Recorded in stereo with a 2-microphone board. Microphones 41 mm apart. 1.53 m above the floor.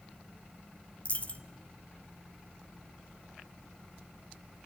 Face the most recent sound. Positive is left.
turn(degrees=35)  # may be behind; listen again after turning